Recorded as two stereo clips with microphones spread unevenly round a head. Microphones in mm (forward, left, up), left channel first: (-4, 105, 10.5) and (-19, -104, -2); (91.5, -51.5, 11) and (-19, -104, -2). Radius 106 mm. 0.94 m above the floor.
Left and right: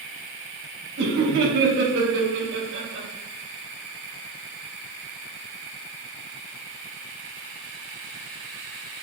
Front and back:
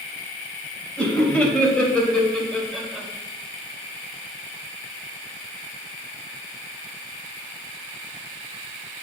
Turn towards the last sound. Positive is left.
turn(degrees=-65)